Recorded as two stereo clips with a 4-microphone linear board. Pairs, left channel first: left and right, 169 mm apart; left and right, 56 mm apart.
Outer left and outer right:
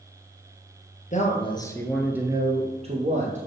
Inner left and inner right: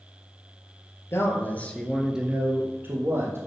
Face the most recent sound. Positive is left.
turn(degrees=-50)  # may be behind; listen again after turning